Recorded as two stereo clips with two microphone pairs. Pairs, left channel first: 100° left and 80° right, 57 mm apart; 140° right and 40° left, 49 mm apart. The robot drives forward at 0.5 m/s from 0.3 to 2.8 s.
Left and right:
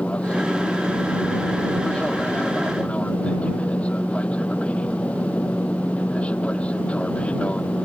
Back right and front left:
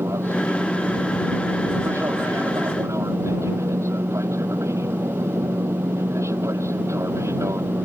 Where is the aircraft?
30° left.